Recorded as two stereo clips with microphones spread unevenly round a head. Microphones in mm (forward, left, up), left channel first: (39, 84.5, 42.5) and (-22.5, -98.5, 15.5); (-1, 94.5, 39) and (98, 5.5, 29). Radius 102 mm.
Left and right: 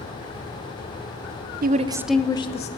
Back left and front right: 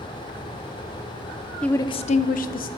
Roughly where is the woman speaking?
Behind right.